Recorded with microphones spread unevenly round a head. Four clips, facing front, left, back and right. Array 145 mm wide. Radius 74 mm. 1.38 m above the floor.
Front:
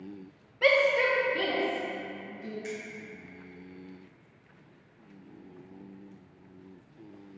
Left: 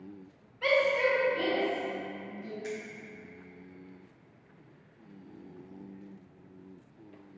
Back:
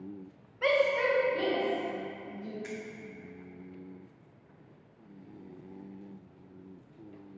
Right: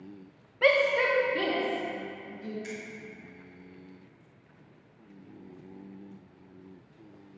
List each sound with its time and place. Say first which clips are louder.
0.6 s a shout: right 2 dB, front 2 dB; 60° right, 0.9 m; by 2.5 s 70° right, 3.5 m
2.6 s a finger snap: left 3 dB, front 6 dB; straight behind, 1.4 m